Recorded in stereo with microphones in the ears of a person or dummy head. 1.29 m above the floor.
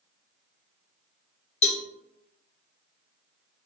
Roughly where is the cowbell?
Left.